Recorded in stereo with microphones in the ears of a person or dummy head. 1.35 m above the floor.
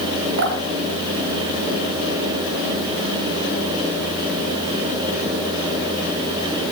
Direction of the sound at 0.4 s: 65° right (ahead or behind).